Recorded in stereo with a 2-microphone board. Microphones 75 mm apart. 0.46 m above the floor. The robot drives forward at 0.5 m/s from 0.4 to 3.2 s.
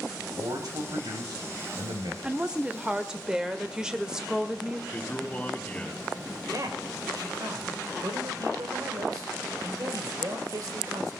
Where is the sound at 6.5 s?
50° right (ahead or behind), 2.0 m.